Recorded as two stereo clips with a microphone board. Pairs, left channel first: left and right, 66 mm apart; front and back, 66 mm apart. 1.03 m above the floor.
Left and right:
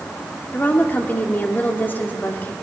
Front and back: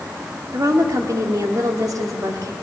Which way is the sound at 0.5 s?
150° left.